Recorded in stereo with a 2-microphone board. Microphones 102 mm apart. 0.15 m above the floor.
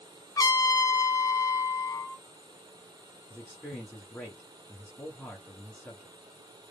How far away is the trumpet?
About 0.5 m.